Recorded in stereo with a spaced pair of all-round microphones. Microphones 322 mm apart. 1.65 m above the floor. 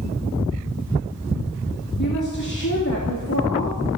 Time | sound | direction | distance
2.0 | a woman speaking | 60° left (ahead or behind) | 2.5 m